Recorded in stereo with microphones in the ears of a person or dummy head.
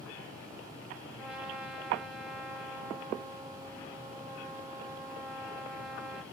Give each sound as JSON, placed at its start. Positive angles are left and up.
{"t": 1.2, "sound": "a trumpet", "side_deg": -5, "distance_m": 2.0}